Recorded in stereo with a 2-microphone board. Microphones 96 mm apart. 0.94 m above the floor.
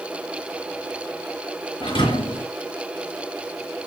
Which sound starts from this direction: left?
A thud, at 1.8 s.